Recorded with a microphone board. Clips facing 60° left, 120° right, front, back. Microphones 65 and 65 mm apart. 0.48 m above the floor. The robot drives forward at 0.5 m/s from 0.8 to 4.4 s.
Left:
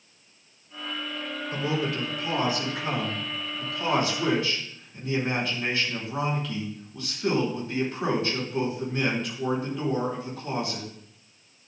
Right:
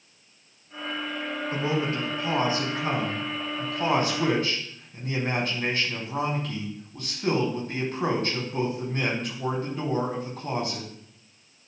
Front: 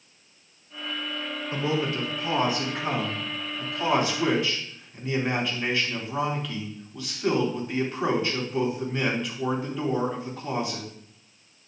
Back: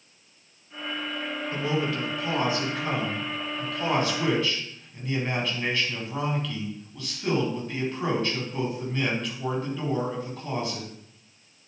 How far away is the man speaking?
About 4.5 m.